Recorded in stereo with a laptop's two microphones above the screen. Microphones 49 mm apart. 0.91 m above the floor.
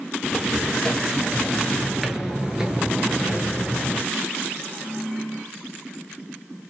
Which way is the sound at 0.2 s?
20° left (ahead or behind).